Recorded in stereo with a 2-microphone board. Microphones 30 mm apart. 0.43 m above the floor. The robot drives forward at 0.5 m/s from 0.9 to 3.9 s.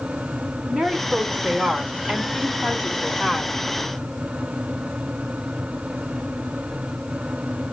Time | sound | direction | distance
0.7 | a woman speaking | 35° right (ahead or behind) | 1.7 m